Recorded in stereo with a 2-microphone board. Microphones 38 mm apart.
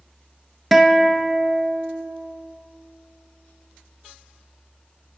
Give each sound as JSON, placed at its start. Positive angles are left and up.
{"t": 0.7, "sound": "a guitar", "side_deg": -5, "distance_m": 0.5}